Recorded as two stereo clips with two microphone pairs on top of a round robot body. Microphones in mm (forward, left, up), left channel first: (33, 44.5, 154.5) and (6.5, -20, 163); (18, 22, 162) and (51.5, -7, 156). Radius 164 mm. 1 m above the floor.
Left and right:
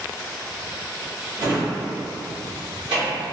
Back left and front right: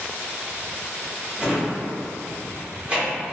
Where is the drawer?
110° right, 1.7 m.